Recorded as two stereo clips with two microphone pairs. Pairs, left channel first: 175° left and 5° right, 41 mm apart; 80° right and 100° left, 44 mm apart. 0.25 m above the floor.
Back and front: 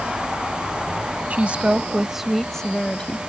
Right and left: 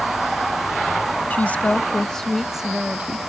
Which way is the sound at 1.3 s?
45° right.